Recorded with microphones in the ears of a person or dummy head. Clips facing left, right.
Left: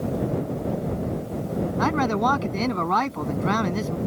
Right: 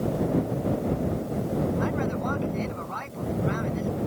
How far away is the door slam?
No door slam in this recording.